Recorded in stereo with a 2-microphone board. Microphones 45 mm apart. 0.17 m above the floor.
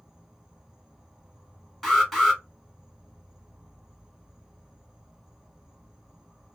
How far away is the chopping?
I don't hear chopping.